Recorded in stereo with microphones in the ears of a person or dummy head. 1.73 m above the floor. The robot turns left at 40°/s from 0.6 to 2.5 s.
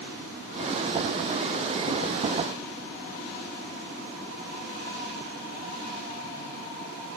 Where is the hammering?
No hammering in this recording.